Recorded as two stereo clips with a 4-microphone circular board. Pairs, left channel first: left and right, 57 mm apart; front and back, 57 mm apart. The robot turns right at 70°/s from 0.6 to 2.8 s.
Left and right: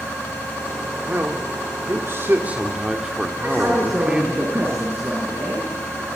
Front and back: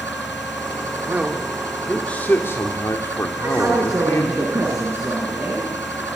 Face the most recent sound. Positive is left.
turn(degrees=-140)